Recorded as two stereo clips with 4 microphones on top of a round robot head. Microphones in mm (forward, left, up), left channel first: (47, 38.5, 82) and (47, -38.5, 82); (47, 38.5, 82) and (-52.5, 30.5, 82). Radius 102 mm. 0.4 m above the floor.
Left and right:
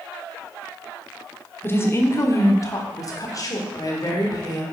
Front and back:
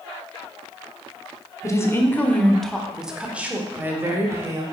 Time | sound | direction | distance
1.6 | a woman speaking | 45° left | 1.2 m